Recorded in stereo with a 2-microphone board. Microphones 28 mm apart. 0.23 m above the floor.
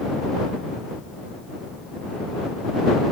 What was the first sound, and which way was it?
Only background noise.